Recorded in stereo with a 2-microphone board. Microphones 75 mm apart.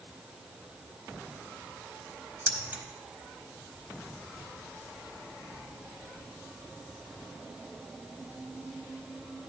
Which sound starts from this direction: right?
Keys jangling, at 2.5 s.